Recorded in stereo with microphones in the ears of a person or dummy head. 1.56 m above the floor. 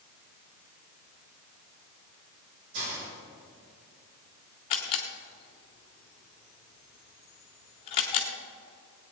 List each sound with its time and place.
2.7 s a hiss: 80° right, 4.5 m
4.7 s a camera shutter: 35° left (ahead or behind), 1.5 m